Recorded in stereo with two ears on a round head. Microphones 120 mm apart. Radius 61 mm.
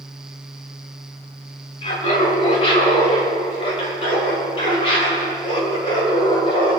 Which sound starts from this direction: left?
Laughter, at 1.8 s.